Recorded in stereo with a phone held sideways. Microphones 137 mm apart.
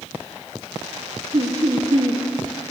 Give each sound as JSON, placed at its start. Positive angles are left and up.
{"t": 1.3, "sound": "laughter", "side_deg": -40, "distance_m": 1.0}